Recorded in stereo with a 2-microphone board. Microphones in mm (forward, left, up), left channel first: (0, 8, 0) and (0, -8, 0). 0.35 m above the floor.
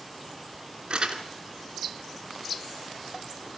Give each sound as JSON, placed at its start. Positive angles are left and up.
{"t": 0.9, "sound": "crumpling", "side_deg": -70, "distance_m": 2.5}